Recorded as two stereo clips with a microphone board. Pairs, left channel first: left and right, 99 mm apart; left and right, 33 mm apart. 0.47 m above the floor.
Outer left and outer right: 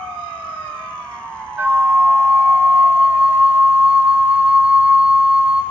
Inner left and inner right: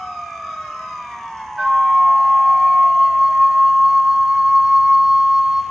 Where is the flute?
20° right (ahead or behind), 1.3 m.